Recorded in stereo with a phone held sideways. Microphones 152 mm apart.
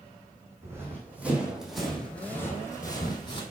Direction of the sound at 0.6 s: 15° right (ahead or behind).